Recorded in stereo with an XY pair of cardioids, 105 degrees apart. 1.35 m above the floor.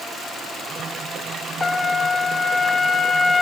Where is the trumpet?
30° left, 0.7 m.